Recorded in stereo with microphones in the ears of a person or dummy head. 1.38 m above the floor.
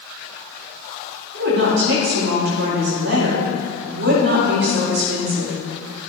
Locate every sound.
1.3 s a woman speaking: 65° right (ahead or behind), 3 m